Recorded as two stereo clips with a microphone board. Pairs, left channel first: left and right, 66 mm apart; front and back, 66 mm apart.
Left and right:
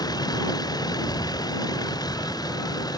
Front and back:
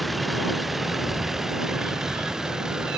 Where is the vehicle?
90° left; by 3.0 s 100° left.